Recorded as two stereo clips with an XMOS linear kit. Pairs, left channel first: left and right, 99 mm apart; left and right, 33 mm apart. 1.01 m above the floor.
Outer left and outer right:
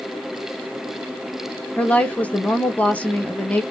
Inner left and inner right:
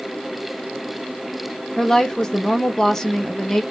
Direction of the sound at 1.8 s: 15° left (ahead or behind).